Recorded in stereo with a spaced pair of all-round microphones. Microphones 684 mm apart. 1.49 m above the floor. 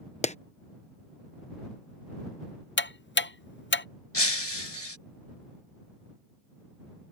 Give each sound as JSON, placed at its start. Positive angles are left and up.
{"t": 0.2, "sound": "a clap", "side_deg": 10}
{"t": 2.8, "sound": "ticking", "side_deg": 20}
{"t": 4.1, "sound": "breaking glass", "side_deg": 35}